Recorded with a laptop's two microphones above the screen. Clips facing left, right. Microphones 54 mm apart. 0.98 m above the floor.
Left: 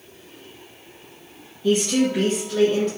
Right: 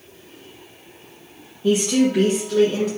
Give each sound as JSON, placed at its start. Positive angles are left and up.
{"t": 1.6, "sound": "a woman speaking", "side_deg": -15, "distance_m": 0.6}